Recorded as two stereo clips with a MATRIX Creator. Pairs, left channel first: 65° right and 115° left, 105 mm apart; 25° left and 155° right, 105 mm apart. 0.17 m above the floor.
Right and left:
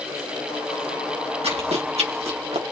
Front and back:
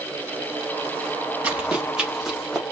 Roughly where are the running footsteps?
Behind left.